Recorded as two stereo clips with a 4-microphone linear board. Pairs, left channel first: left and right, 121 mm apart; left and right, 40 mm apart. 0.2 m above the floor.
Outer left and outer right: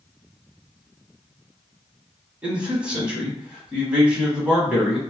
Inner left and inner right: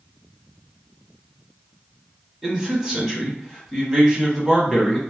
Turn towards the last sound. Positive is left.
turn(degrees=-10)  # may be behind; listen again after turning